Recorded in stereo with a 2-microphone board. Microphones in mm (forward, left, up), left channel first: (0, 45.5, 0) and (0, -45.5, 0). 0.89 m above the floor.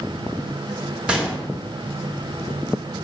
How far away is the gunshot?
About 0.8 m.